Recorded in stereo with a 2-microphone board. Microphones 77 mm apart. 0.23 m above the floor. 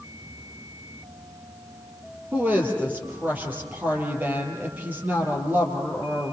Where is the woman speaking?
25° right (ahead or behind), 6 m.